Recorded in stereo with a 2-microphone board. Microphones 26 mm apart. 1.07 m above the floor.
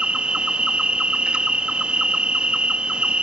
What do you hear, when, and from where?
0.0 s an insect: 40° right (ahead or behind), 0.7 m